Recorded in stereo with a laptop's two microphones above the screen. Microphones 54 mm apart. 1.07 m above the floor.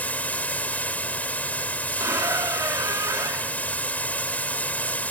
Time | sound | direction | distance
0.0 | running water | 30° left (ahead or behind) | ?
2.0 | a squeak | 75° right (ahead or behind) | ?